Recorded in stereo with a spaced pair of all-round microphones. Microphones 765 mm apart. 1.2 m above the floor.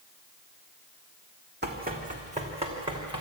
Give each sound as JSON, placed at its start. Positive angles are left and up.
{"t": 1.6, "sound": "running footsteps", "side_deg": -15, "distance_m": 2.5}